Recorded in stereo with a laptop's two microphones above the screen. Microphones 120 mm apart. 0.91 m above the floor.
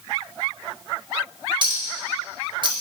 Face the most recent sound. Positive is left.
turn(degrees=-40)  # may be behind; listen again after turning